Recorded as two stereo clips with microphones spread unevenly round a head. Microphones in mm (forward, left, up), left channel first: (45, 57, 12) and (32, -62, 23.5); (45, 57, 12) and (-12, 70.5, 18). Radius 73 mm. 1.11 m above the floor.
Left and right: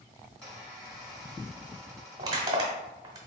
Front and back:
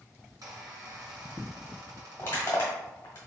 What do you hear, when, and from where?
0.4 s a squeak: 175° left, 1.9 m
2.2 s crushing: 65° right, 1.1 m